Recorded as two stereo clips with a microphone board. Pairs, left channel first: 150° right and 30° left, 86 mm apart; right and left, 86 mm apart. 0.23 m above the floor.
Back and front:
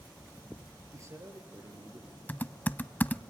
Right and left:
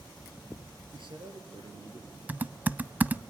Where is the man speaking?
80° left, 4.5 m.